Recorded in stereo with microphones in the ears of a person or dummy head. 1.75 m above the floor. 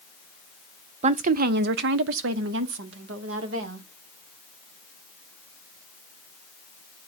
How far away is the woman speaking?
About 0.6 m.